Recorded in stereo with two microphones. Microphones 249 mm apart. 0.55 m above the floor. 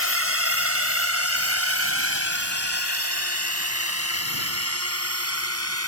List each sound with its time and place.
0.0 s a drone: 60° right (ahead or behind); by 5.9 s 75° right (ahead or behind)